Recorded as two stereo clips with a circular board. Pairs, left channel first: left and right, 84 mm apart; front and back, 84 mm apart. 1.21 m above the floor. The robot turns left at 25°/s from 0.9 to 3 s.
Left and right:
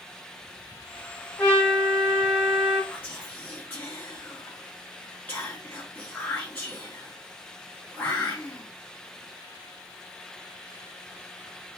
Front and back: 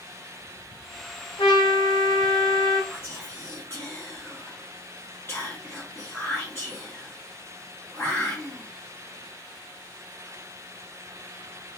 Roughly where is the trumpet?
Ahead.